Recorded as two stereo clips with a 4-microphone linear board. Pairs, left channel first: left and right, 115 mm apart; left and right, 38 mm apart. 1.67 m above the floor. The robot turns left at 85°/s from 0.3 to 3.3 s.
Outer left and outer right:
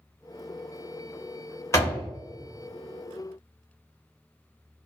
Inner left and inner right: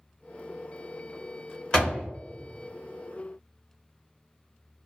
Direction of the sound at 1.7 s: 25° left (ahead or behind).